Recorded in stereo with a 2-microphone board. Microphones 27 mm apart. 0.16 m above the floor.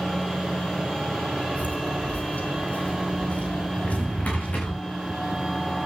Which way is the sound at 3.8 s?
80° left.